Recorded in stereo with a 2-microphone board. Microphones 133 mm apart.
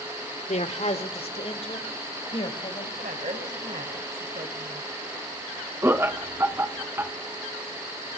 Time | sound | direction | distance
0.5 | a man speaking | 55° left (ahead or behind) | 1.7 m
3.0 | a woman speaking | 75° right (ahead or behind) | 3.5 m
5.8 | laughter | 20° right (ahead or behind) | 1.0 m